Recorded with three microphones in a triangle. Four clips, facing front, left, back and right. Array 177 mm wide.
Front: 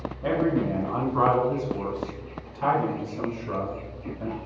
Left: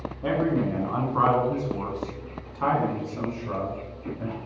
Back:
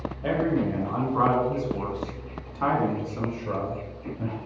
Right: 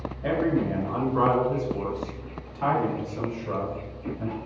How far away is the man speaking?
About 1.5 m.